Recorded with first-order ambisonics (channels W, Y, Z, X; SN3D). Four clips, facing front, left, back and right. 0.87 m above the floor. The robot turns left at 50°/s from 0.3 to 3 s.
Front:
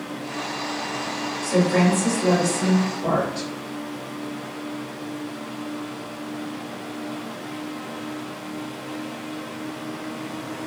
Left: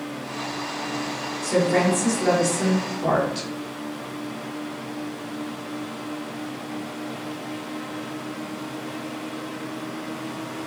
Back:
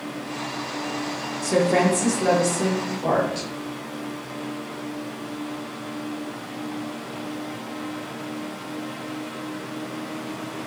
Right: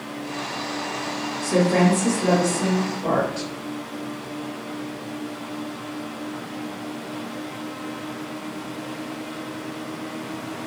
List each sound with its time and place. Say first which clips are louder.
1.4 s a woman speaking: right 1 dB, even; 165° right, 1.4 m; by 3.5 s 115° left, 1.4 m